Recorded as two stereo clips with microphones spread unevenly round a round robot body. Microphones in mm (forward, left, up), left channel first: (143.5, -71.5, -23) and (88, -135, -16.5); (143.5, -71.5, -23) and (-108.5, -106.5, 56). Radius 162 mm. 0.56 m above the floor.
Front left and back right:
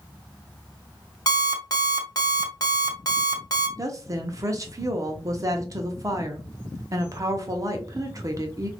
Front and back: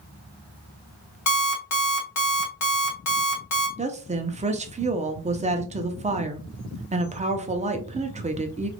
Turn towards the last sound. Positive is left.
turn(degrees=-95)